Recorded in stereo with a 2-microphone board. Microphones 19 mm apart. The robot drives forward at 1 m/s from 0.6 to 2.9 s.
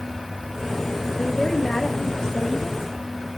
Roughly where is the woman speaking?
Left.